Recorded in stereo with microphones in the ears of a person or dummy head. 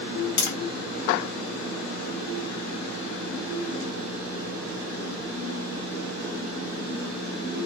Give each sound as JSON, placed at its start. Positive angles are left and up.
{"t": 0.4, "sound": "tapping", "side_deg": 55, "distance_m": 0.8}